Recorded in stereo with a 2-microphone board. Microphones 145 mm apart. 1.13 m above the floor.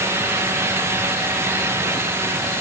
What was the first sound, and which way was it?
Only background noise.